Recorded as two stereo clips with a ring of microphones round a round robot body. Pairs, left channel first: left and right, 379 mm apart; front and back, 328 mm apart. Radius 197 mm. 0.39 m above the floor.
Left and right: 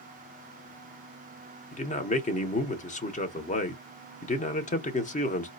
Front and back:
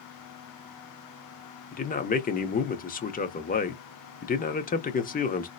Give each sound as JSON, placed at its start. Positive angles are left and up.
{"t": 1.7, "sound": "a man speaking", "azimuth_deg": 35, "distance_m": 0.9}